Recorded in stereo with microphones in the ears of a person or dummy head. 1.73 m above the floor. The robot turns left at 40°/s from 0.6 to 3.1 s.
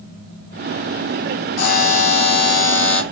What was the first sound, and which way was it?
A buzzer, 75° left.